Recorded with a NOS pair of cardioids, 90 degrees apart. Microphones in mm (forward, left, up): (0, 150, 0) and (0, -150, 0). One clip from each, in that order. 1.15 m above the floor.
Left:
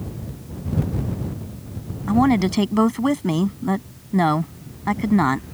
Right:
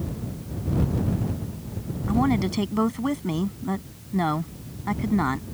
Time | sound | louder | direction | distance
2.1 | a woman speaking | left 6 dB | 45° left | ?